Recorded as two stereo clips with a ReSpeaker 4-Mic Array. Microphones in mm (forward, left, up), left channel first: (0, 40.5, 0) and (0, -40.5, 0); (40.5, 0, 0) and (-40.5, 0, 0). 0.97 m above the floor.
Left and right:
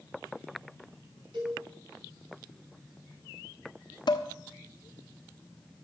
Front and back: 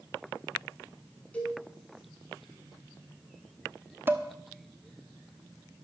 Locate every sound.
1.3 s a cowbell: 75° right, 6 m
4.1 s dishes clattering: 115° left, 1.1 m